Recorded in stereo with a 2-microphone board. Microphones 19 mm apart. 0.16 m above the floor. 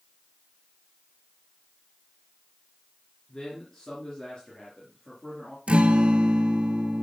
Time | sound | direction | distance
3.3 | a man speaking | 40° left (ahead or behind) | 2.5 m
5.7 | a guitar | 75° right (ahead or behind) | 0.7 m